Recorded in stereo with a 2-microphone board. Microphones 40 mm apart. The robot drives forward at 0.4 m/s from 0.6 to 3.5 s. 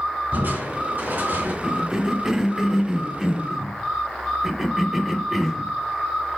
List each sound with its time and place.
0.3 s crushing: 65° right (ahead or behind), 3 m; by 1.5 s 60° right (ahead or behind), 3 m
1.6 s a cough: 15° right (ahead or behind), 0.7 m; by 5.7 s 10° right (ahead or behind), 1.1 m